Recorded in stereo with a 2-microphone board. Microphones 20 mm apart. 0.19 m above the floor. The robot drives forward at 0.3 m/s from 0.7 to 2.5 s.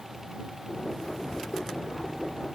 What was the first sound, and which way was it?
Only background noise.